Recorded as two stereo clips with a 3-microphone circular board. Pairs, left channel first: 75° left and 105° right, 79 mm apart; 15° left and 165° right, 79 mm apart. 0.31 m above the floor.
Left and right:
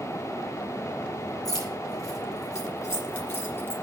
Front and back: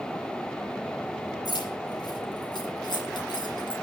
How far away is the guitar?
I don't hear a guitar.